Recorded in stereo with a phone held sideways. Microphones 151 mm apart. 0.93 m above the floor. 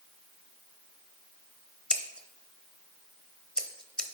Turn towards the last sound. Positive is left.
turn(degrees=5)  # may be behind; listen again after turning